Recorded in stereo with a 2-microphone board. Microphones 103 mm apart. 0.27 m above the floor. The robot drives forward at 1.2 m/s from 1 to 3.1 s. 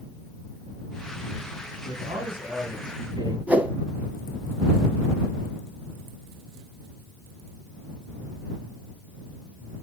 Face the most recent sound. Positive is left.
turn(degrees=-15)  # may be behind; listen again after turning